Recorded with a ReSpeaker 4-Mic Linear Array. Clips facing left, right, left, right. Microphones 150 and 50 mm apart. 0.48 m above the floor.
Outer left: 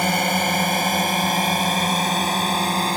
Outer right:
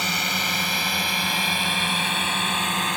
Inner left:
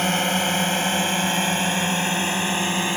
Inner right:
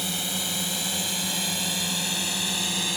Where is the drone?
55° left (ahead or behind); by 3.0 s 35° left (ahead or behind).